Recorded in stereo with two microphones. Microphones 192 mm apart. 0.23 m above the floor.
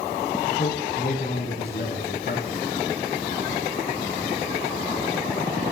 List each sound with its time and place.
0.5 s a man speaking: 40° left (ahead or behind), 1.3 m; by 2.6 s 65° left (ahead or behind), 2.5 m